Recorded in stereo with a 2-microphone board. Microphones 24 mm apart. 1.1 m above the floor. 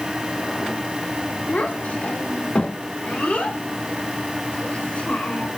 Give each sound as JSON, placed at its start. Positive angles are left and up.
{"t": 1.5, "sound": "a child speaking", "side_deg": 90, "distance_m": 2.5}